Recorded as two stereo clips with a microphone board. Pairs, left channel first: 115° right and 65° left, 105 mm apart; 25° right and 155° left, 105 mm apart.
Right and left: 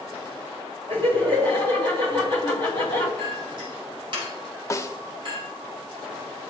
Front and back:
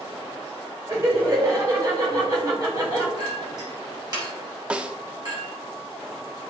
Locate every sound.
0.9 s laughter: 105° left, 5 m
3.2 s a clink: 110° left, 4.5 m
4.7 s a snare drum: 135° right, 0.7 m